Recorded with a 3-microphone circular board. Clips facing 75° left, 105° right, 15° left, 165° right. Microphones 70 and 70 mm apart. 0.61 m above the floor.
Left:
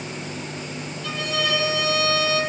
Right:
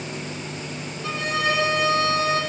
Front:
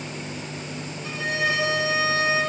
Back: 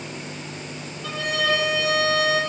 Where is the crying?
I don't hear crying.